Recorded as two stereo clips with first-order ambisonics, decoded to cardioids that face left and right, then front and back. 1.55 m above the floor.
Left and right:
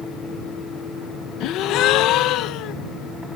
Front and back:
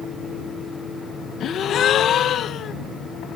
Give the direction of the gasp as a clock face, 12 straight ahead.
10 o'clock.